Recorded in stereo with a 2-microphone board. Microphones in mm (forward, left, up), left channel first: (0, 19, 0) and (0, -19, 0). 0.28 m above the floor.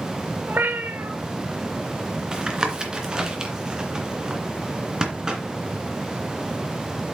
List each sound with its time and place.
0.5 s a cat meowing: 65° right (ahead or behind), 1.3 m
2.3 s tapping: 20° right (ahead or behind), 2 m